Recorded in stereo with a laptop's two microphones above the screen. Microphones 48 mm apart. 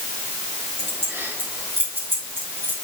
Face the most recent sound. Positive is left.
turn(degrees=-50)  # may be behind; listen again after turning